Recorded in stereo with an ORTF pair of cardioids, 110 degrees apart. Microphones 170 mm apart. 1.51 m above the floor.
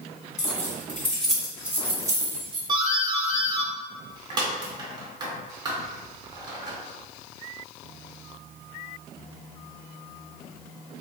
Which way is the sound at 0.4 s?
20° left.